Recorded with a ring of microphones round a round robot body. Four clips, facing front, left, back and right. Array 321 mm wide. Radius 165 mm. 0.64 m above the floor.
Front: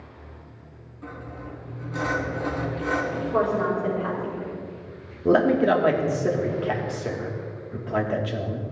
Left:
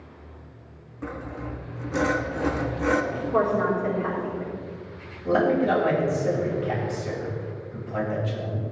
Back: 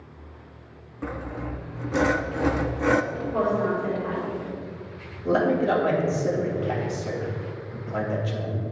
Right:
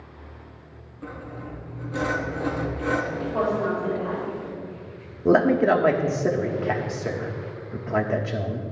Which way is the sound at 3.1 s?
55° left.